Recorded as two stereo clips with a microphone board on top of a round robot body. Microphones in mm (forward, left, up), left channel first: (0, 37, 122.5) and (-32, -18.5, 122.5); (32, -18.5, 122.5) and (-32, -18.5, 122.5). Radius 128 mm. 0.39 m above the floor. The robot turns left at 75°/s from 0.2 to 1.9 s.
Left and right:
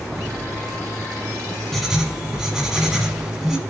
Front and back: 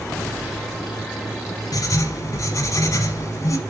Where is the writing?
25° right, 1.0 m; by 3.6 s 35° right, 1.0 m.